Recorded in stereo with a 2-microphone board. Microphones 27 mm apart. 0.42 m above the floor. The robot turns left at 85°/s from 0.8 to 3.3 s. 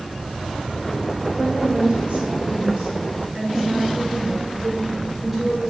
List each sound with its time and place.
1.4 s a woman speaking: 15° right, 4.5 m; by 5.7 s straight behind, 4.5 m